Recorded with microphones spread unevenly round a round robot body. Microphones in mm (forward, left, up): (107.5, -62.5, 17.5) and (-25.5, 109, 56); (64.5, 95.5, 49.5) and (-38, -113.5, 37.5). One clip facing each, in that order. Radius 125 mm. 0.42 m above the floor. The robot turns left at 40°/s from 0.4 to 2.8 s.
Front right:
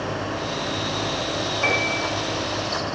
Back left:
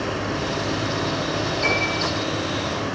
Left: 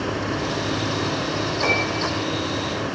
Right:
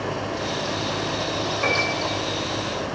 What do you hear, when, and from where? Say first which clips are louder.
1.6 s a piano: back left 1 dB, left 1 dB; 60° right, 4 m; by 2.0 s 80° right, 4 m